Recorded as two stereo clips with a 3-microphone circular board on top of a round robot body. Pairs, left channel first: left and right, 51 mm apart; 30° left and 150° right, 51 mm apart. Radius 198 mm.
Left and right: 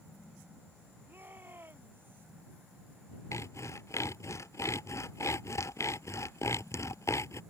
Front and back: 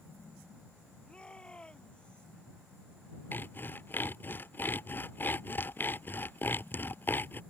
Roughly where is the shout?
Ahead right.